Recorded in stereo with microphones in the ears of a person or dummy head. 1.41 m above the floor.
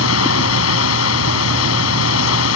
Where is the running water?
80° left.